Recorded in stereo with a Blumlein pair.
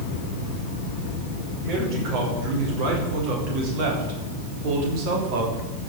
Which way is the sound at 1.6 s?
40° right.